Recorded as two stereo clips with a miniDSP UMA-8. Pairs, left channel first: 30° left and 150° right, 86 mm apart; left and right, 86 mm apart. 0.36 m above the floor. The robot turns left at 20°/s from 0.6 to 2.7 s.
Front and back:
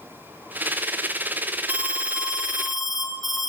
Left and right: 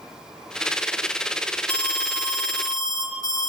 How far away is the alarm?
About 1.1 m.